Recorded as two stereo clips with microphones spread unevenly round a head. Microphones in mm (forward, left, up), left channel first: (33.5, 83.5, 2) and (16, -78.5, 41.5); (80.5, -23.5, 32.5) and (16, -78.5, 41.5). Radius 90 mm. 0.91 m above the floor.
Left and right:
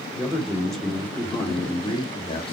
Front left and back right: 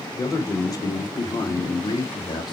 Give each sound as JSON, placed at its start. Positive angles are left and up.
{"t": 0.2, "sound": "a man speaking", "azimuth_deg": -5, "distance_m": 3.0}